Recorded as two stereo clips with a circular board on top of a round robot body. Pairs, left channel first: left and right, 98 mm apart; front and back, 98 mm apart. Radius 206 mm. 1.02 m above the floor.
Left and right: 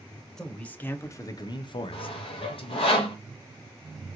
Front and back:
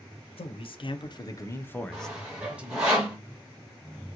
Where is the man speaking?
5° left, 1.0 m; by 2.9 s 110° left, 1.1 m.